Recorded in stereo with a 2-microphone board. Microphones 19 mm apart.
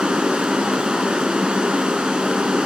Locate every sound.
0.0 s running water: 65° right (ahead or behind), 1.9 m